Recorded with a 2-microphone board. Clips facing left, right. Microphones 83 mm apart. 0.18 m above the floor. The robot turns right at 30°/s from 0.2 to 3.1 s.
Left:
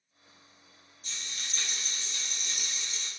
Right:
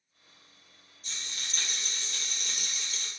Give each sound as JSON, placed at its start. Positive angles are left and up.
{"t": 1.0, "sound": "a rattle", "azimuth_deg": -135, "distance_m": 0.6}